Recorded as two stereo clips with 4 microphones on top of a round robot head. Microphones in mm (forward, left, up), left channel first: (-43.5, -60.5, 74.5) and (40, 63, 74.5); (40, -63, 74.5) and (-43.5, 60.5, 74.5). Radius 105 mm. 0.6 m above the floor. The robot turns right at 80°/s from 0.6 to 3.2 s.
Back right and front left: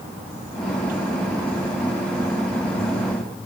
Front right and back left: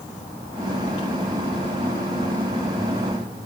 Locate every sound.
Only background noise.